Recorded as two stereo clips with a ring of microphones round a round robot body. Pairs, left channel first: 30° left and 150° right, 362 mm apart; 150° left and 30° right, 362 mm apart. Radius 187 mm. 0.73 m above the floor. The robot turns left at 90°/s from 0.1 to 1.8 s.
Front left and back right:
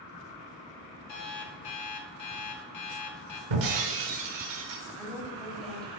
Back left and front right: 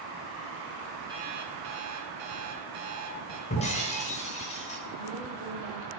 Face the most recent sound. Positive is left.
turn(degrees=-60)